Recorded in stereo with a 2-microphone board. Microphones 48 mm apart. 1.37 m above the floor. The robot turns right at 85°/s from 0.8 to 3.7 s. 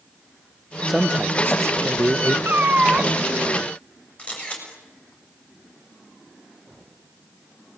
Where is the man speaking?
175° right, 1.1 m; by 2.4 s 50° right, 1.1 m.